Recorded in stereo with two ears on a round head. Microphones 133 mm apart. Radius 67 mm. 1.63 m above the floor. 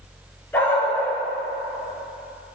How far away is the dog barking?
About 5 m.